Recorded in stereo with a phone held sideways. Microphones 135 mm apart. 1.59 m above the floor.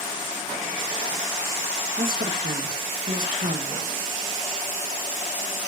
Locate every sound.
2.0 s a woman speaking: 80° right, 2 m